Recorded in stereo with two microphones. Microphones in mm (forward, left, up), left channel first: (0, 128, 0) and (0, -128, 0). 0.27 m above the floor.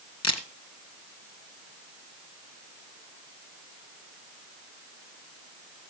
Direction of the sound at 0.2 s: 85° left.